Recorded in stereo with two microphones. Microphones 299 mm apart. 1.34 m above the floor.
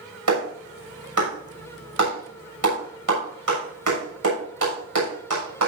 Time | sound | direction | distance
0.3 | a clap | 85° right | 7 m